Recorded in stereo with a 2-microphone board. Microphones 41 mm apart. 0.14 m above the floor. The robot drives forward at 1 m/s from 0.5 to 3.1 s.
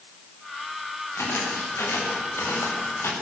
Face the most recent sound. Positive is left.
turn(degrees=80)